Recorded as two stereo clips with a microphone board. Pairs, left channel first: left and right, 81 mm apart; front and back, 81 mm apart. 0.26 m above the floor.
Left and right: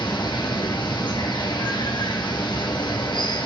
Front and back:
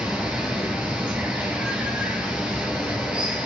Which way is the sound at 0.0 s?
105° left.